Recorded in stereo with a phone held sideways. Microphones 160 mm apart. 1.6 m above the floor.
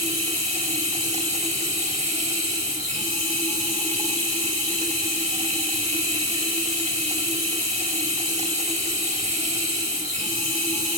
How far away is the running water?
About 3.5 m.